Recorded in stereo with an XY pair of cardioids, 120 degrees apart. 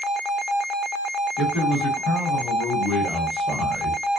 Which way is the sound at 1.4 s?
60° left.